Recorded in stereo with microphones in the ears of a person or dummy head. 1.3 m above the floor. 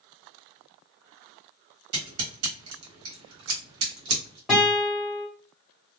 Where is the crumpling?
I don't hear crumpling.